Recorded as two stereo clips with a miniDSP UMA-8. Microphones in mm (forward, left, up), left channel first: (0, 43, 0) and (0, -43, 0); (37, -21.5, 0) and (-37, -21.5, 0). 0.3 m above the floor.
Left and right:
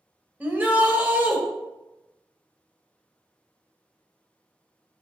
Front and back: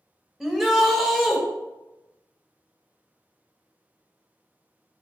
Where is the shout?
100° right, 0.9 m.